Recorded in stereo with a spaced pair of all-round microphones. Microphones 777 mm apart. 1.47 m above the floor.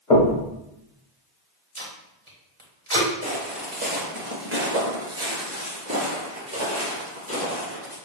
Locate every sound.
0.1 s knocking: 55° left (ahead or behind), 1.5 m
1.8 s tape being pulled: 40° right (ahead or behind), 1.3 m
3.2 s footsteps: 10° right (ahead or behind), 2.0 m; by 8.0 s 15° right (ahead or behind), 2.5 m